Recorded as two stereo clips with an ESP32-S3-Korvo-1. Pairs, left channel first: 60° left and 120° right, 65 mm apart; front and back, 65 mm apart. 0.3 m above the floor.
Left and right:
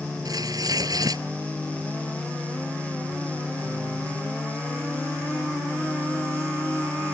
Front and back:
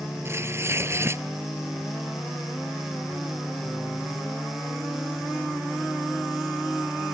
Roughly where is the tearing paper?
Behind right.